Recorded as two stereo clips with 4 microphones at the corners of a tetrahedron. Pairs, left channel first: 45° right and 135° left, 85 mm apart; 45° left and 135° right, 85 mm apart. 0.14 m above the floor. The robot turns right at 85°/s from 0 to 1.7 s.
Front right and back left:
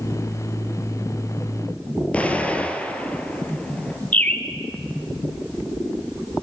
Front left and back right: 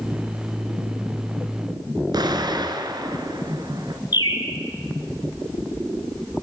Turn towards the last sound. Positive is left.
turn(degrees=25)